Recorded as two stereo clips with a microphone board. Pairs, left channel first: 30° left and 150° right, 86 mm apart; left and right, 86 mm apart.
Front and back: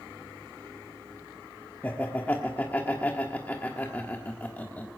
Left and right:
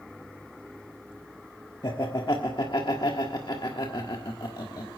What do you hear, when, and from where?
1.8 s laughter: 95° left, 1.4 m